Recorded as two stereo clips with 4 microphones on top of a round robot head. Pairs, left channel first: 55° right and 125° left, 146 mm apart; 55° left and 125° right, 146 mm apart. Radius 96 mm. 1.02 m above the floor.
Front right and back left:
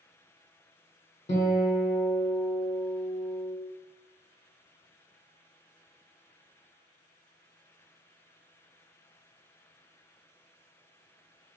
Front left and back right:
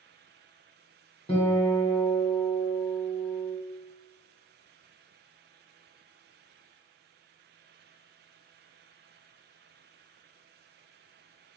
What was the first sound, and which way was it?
A guitar, 5° right.